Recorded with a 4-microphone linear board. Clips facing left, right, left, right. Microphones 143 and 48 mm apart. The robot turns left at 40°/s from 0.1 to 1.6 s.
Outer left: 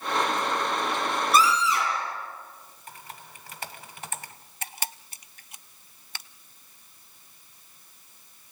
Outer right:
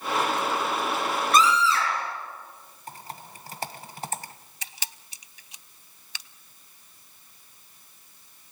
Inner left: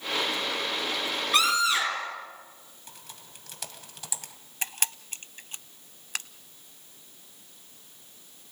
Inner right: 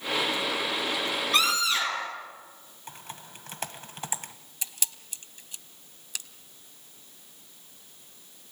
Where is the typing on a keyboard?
35° right (ahead or behind), 1.6 m.